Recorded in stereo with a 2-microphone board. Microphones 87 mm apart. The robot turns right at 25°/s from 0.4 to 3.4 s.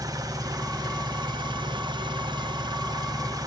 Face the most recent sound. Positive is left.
turn(degrees=-50)